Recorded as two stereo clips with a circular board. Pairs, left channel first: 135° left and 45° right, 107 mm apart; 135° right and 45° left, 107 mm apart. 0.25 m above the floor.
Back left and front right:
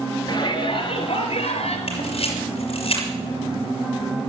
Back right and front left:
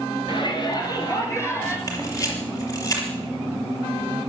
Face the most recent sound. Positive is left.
turn(degrees=165)